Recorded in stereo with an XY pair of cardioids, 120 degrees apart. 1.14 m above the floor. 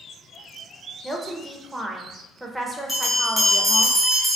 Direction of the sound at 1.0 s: 5° right.